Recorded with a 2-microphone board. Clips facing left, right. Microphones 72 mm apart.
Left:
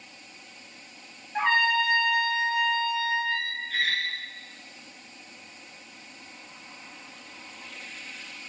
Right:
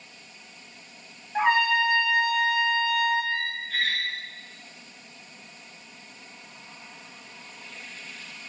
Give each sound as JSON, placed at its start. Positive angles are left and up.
{"t": 1.4, "sound": "a trumpet", "side_deg": -10, "distance_m": 0.7}
{"t": 3.3, "sound": "a squeak", "side_deg": 0, "distance_m": 0.7}